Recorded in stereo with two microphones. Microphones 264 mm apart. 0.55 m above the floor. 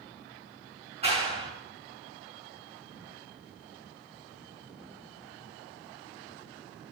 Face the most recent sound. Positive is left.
turn(degrees=-25)  # may be behind; listen again after turning